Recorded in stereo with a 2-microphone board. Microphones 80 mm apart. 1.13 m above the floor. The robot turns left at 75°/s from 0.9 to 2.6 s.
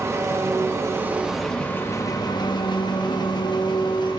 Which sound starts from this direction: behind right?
An engine running, at 0.0 s.